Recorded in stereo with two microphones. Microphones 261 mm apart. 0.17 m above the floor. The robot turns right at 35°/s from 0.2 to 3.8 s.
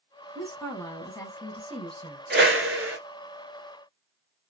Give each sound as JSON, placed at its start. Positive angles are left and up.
{"t": 0.3, "sound": "a woman speaking", "side_deg": 0, "distance_m": 1.3}
{"t": 2.3, "sound": "a whoosh", "side_deg": -40, "distance_m": 0.9}